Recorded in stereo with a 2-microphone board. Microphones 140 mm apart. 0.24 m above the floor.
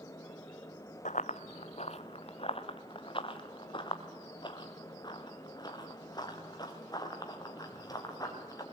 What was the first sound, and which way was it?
Running footsteps, 65° left (ahead or behind).